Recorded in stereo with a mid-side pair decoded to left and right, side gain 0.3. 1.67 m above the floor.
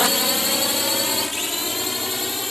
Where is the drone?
20° left; by 2.5 s 25° left.